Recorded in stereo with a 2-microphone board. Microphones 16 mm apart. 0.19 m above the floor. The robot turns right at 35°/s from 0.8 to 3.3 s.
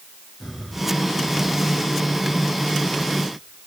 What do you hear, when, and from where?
0.4 s breathing: 20° right (ahead or behind), 6 m; by 3.2 s 65° left (ahead or behind), 6 m